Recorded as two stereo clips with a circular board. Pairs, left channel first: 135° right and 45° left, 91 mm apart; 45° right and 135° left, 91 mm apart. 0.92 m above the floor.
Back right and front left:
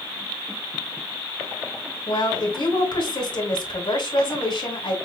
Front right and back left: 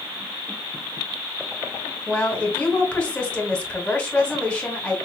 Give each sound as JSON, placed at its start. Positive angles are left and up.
{"t": 2.1, "sound": "a woman speaking", "azimuth_deg": -125, "distance_m": 2.0}